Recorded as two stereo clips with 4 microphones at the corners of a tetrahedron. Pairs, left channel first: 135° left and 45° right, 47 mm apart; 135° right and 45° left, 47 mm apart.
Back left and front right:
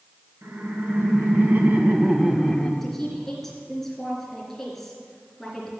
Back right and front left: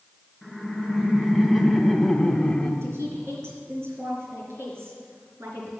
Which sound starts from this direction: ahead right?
Laughter, at 0.4 s.